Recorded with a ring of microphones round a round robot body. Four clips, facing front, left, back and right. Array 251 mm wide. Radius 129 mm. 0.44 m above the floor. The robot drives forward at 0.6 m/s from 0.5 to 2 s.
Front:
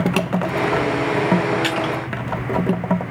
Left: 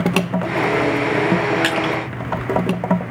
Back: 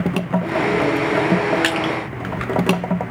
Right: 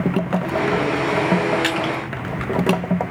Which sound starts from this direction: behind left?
Crushing, at 1.6 s.